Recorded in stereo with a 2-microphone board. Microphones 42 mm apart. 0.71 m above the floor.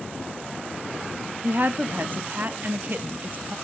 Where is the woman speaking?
45° right (ahead or behind), 0.6 m.